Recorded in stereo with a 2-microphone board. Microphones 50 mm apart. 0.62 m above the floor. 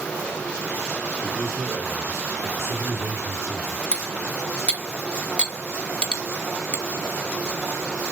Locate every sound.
1.2 s a man speaking: 30° right (ahead or behind), 1.3 m; by 3.8 s 50° right (ahead or behind), 1.9 m
3.9 s cutlery clinking: 20° left (ahead or behind), 0.6 m